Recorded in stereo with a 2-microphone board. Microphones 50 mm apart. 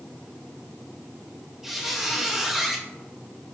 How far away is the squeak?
About 0.6 m.